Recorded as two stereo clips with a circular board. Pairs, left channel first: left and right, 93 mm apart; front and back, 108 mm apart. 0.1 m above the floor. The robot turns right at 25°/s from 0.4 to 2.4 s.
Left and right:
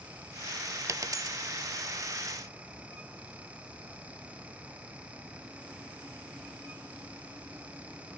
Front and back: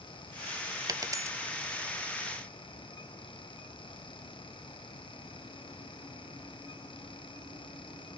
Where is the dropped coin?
135° right, 0.5 m; by 1.4 s 125° right, 0.5 m.